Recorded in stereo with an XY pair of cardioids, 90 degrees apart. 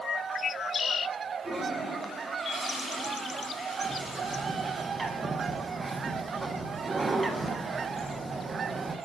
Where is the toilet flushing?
40° right, 4.5 m.